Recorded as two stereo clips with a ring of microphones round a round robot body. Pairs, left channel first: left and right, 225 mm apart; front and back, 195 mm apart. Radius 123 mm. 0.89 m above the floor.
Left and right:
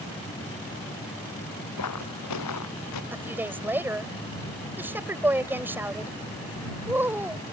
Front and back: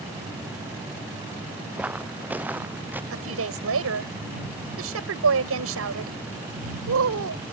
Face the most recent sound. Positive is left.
turn(degrees=-170)